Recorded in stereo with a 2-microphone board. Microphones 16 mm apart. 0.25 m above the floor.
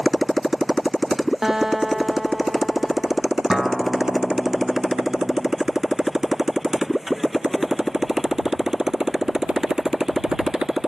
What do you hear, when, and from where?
0.0 s a motorcycle: 5° left (ahead or behind); by 10.9 s 50° right (ahead or behind)
1.4 s a guitar: 30° right (ahead or behind)
3.5 s a guitar: 60° right (ahead or behind)